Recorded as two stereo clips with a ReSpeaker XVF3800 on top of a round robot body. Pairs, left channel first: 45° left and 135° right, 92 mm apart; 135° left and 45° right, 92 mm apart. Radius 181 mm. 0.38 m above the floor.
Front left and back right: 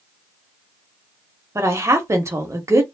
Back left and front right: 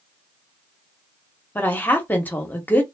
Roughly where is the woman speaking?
Behind.